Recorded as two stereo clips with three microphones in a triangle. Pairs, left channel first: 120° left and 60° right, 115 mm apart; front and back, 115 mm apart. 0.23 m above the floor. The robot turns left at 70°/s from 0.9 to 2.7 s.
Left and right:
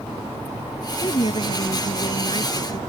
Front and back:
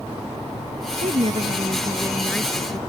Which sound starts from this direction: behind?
A woman speaking, at 1.0 s.